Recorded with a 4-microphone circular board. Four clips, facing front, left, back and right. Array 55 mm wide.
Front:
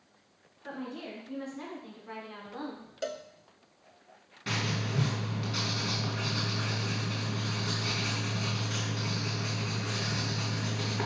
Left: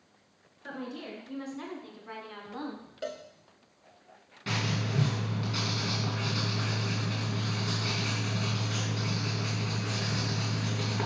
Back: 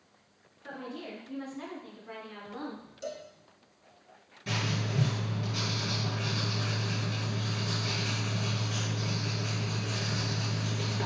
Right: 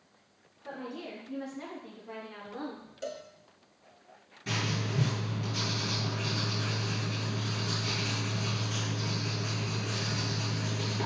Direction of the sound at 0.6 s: 80° left.